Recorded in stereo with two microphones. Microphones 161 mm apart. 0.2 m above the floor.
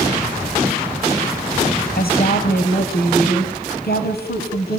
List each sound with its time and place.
2.0 s a woman speaking: 70° left (ahead or behind), 5 m